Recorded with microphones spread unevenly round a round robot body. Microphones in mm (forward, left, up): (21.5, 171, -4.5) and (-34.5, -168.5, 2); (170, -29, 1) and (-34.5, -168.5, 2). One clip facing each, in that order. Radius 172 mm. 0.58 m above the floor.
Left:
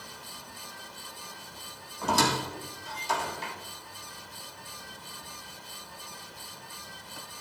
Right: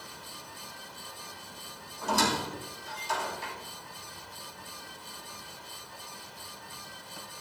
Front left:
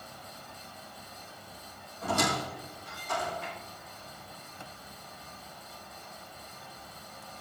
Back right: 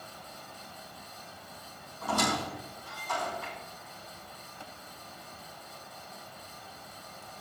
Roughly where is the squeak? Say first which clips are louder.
Left 1 dB, even; left.